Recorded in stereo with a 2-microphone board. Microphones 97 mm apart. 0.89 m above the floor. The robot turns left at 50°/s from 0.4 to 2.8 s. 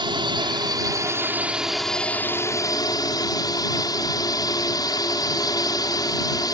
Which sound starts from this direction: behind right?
A drone, at 0.0 s.